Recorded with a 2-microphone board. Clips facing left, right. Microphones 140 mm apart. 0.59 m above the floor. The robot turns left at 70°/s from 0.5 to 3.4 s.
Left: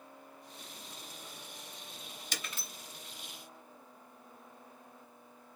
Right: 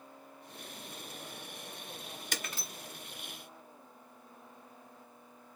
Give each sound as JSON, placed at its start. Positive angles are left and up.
{"t": 2.3, "sound": "breaking glass", "side_deg": -55, "distance_m": 1.9}